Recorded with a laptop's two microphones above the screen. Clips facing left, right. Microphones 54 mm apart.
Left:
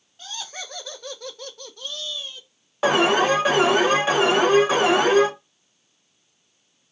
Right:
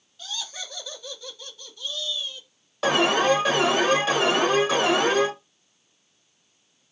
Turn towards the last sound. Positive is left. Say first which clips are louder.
# left 2 dB
turn(degrees=25)  # may be behind; listen again after turning